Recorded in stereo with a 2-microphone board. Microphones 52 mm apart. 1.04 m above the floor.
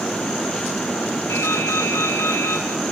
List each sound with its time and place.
1.3 s dripping: 55° left (ahead or behind), 8 m